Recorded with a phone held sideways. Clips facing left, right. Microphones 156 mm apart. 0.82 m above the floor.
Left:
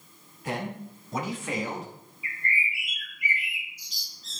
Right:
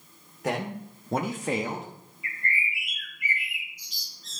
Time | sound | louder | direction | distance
0.4 | a man speaking | right 3 dB | 80° right | 2 m
2.2 | a bird | even | 55° right (ahead or behind) | 4.5 m